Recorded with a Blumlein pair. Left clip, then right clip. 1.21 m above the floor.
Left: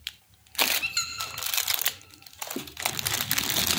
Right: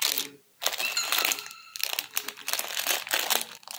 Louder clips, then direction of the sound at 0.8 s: Right 3 dB; 5° left.